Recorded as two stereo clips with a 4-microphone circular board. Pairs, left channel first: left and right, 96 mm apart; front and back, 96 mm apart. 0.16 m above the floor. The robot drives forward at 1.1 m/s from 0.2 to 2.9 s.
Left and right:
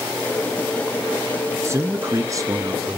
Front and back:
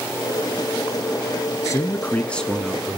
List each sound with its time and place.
1.6 s a man speaking: 40° right, 1.9 m; by 3.0 s 110° right, 1.6 m